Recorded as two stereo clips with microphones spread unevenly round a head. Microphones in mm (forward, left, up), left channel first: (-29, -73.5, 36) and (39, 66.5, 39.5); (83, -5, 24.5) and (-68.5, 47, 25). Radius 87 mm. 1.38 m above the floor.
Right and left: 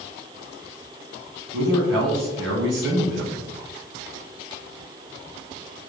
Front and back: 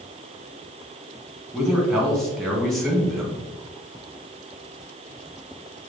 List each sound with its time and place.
1.5 s a man speaking: 70° left, 1.4 m